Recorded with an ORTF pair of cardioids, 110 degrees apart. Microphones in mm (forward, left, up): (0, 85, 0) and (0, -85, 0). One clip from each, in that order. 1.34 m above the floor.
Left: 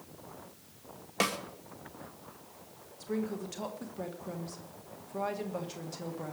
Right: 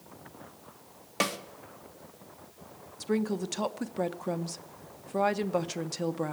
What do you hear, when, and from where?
1.2 s a snare drum: 5° right, 2.0 m
3.0 s a woman speaking: 50° right, 1.2 m